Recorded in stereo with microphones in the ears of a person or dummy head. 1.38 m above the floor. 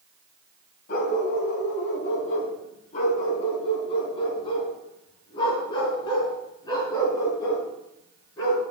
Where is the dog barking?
50° left (ahead or behind), 2.5 m; by 8.6 s 20° left (ahead or behind), 6 m.